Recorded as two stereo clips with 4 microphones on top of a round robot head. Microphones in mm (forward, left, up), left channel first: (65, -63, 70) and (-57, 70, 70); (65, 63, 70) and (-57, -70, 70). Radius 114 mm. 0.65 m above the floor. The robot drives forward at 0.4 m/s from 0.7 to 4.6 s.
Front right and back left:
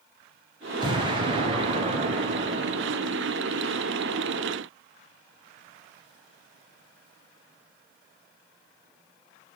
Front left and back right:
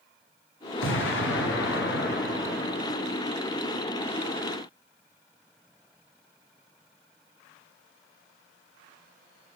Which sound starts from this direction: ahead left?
An explosion, at 0.8 s.